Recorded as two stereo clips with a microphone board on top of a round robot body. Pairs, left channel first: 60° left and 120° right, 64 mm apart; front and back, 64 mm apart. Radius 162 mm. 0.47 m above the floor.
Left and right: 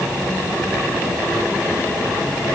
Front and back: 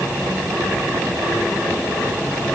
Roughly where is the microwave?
I don't hear a microwave.